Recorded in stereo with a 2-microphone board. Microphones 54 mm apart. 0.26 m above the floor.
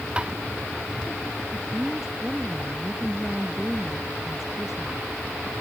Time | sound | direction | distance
0.2 | tapping | 20° right (ahead or behind) | ?
1.5 | a woman speaking | 5° right (ahead or behind) | ?